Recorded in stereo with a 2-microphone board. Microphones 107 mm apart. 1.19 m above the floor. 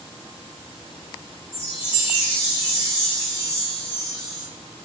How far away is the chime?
About 2 m.